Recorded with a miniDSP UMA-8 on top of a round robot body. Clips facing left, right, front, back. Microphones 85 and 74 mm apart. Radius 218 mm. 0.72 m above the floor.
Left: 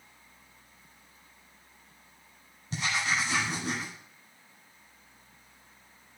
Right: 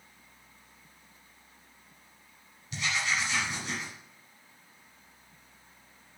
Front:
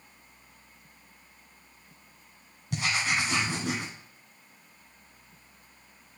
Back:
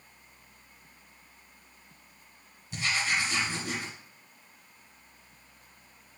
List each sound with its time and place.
2.7 s writing: 30° left, 1.6 m